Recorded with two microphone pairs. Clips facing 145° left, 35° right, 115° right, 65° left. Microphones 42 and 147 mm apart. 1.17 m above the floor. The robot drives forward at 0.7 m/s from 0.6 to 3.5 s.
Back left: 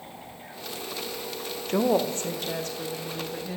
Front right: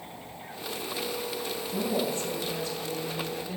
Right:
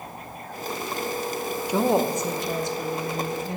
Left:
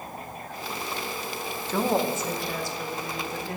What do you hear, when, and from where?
1.7 s a woman speaking: 170° left, 0.5 m; by 3.6 s 175° left, 1.8 m